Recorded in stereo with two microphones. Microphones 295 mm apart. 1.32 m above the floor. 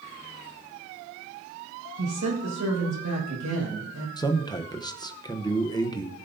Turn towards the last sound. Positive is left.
turn(degrees=15)  # may be behind; listen again after turning